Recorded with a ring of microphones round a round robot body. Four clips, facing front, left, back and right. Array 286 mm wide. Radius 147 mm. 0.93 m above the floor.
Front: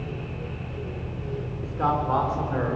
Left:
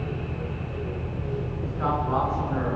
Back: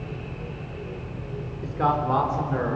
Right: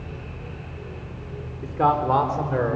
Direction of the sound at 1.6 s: 100° right.